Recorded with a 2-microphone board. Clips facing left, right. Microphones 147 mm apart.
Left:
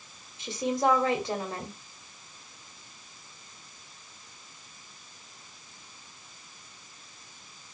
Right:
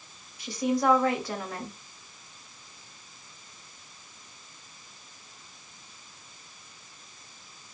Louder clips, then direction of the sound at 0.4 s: Right 1 dB; 25° left (ahead or behind).